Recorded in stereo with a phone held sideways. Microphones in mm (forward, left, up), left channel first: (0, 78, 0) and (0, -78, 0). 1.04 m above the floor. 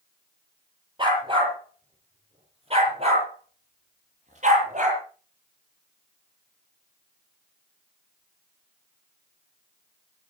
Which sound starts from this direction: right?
A dog barking, at 1.0 s.